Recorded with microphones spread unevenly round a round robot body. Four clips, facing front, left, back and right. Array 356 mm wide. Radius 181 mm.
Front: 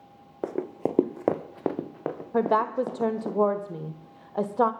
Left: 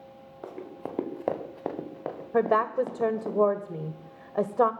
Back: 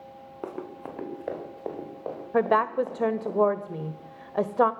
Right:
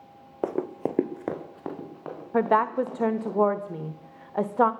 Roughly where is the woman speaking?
Behind left.